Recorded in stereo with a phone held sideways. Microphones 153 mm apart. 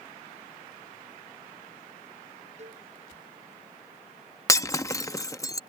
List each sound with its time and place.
2.6 s a cowbell: 50° right (ahead or behind)
4.5 s breaking glass: 20° left (ahead or behind)